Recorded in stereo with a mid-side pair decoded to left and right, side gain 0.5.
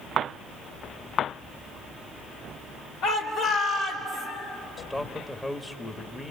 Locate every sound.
3.0 s a shout: 70° left, 3.5 m; by 4.3 s 65° left, 5 m
4.8 s a man speaking: 20° left, 1.7 m